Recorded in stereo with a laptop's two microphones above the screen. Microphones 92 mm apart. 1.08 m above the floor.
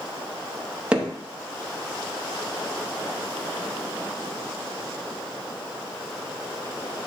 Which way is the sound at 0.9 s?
15° right (ahead or behind).